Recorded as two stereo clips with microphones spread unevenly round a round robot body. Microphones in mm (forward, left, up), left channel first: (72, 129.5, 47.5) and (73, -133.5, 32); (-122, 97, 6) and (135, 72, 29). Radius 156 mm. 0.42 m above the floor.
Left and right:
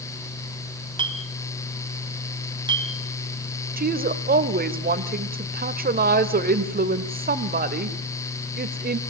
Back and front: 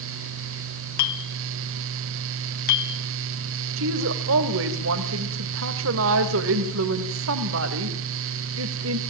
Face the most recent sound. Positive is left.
turn(degrees=-45)